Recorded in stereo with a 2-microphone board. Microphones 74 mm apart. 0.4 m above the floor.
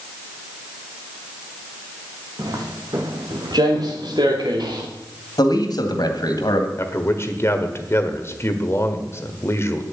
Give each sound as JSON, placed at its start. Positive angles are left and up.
{"t": 2.4, "sound": "footsteps", "side_deg": -55, "distance_m": 2.5}
{"t": 5.4, "sound": "a man speaking", "side_deg": 65, "distance_m": 2.0}
{"t": 6.8, "sound": "a man speaking", "side_deg": 35, "distance_m": 1.4}